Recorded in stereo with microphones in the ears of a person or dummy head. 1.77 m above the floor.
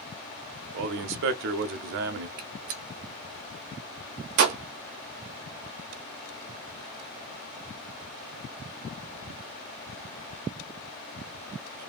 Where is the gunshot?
50° right (ahead or behind), 0.5 m.